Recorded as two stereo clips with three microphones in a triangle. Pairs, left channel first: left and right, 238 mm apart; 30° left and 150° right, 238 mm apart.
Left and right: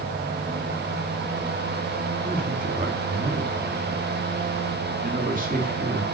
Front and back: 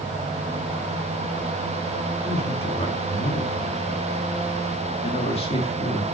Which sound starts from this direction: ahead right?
A man speaking, at 2.2 s.